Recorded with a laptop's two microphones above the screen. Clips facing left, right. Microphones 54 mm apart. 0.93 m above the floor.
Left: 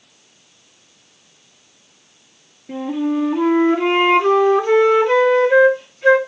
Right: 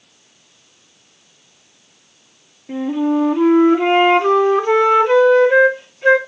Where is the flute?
15° right (ahead or behind), 2.5 m.